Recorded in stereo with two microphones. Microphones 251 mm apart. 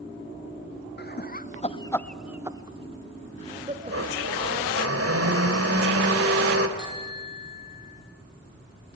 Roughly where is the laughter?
Left.